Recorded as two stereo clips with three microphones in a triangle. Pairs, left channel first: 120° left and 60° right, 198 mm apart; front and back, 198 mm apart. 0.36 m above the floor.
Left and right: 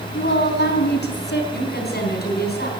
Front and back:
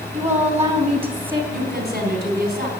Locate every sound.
0.1 s a woman speaking: 130° left, 3 m; by 1.4 s 120° left, 2.5 m
1.5 s a woman speaking: 145° left, 3.5 m